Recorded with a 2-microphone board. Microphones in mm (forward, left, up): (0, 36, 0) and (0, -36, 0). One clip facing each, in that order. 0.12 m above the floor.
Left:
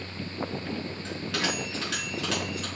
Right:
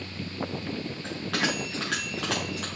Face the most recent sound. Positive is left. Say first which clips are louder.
# right 2 dB
turn(degrees=-75)  # may be behind; listen again after turning